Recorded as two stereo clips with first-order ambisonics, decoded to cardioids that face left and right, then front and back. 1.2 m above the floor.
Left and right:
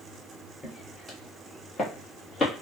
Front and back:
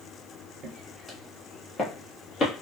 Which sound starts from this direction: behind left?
Footsteps, at 0.6 s.